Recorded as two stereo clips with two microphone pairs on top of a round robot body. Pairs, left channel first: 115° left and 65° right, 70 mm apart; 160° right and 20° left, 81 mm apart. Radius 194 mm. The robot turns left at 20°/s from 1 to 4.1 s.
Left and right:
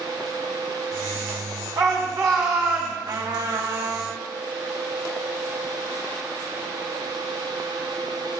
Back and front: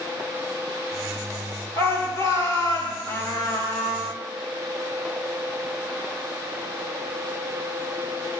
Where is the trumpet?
100° right, 3 m; by 4.1 s 120° right, 3 m.